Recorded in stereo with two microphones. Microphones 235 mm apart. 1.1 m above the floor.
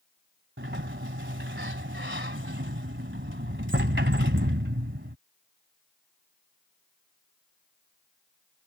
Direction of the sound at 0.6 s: 50° right (ahead or behind).